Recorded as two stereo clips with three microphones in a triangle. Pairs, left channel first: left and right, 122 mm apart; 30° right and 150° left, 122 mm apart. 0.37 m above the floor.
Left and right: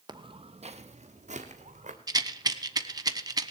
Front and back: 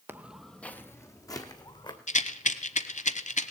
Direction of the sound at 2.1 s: 30° right.